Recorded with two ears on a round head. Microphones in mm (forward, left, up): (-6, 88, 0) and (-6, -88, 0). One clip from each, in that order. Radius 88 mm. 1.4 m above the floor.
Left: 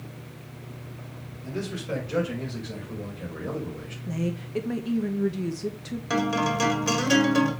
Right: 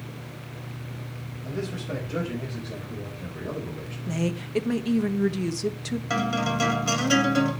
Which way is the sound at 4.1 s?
25° right (ahead or behind).